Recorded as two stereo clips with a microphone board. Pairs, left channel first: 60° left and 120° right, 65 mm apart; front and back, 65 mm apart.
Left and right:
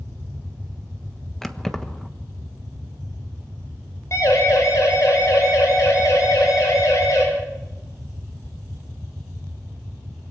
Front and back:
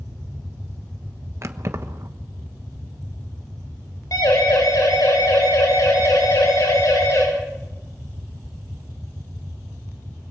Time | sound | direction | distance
1.4 | keys jangling | 140° left | 1.2 m
4.1 | a siren | 20° left | 7 m